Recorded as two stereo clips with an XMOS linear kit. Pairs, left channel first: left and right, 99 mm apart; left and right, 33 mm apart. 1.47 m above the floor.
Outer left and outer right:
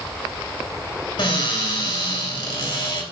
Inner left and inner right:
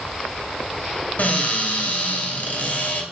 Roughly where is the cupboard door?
Left.